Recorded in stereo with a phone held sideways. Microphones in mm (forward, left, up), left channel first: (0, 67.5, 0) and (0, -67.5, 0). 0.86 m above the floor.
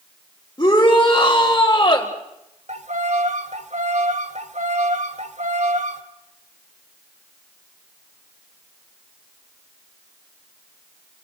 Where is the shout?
25° left (ahead or behind), 3.5 m.